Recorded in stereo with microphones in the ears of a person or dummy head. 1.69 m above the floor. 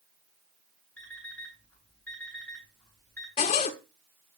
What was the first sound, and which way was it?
An alarm clock, 5° left (ahead or behind).